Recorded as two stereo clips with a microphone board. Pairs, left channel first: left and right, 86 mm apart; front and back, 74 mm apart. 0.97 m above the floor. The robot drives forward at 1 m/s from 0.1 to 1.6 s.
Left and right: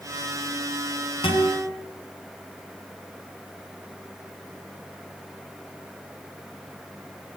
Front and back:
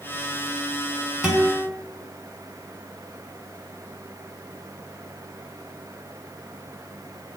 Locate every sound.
1.2 s a guitar: 100° left, 6.5 m; by 1.7 s 105° left, 6.5 m